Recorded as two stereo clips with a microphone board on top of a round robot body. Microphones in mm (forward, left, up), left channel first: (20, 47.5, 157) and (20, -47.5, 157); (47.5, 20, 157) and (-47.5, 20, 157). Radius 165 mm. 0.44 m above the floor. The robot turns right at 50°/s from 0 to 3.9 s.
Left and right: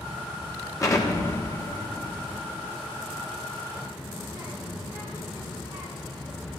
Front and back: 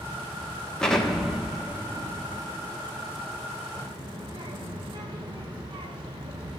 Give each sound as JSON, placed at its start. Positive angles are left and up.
{"t": 0.8, "sound": "an explosion", "azimuth_deg": 75, "distance_m": 1.5}
{"t": 3.7, "sound": "a child speaking", "azimuth_deg": -155, "distance_m": 1.8}